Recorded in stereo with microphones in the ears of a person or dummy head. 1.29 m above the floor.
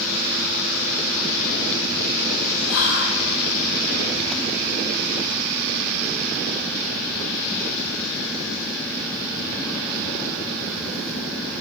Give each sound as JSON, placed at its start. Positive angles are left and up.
{"t": 2.7, "sound": "whispering", "side_deg": 70, "distance_m": 0.9}